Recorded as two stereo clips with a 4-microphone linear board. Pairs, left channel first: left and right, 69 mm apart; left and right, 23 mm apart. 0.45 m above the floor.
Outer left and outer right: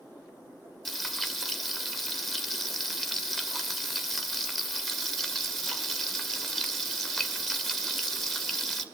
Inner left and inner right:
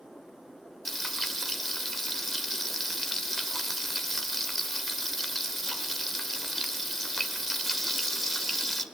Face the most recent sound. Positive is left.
turn(degrees=0)  # may be behind; listen again after turning